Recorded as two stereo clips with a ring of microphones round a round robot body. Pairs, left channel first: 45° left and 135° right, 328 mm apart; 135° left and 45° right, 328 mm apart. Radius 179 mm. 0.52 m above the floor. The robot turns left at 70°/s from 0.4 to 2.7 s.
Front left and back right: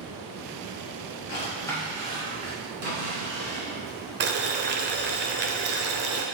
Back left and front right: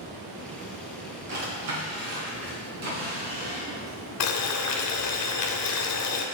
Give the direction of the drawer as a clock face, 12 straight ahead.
12 o'clock.